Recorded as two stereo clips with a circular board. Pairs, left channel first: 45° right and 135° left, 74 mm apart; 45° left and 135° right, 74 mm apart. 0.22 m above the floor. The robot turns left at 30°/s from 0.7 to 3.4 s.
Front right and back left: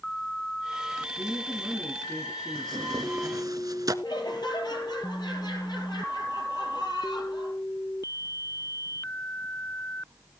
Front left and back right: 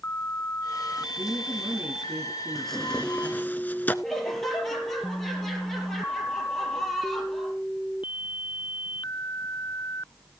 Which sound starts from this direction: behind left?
Tearing paper, at 2.5 s.